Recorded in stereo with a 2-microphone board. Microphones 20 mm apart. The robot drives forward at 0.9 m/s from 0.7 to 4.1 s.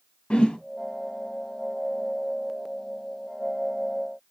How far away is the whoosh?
About 1.7 m.